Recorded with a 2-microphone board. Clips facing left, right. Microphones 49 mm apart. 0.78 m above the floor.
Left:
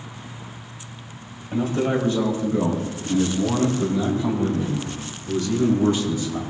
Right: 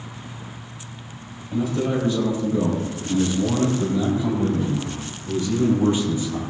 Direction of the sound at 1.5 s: 35° left (ahead or behind).